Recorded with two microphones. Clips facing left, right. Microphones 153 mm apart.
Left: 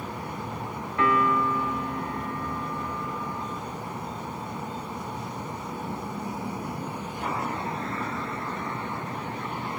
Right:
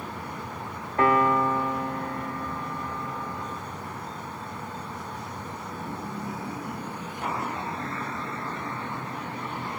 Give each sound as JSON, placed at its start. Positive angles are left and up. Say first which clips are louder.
{"t": 1.0, "sound": "a piano", "louder": "right 2 dB", "side_deg": -35, "distance_m": 1.1}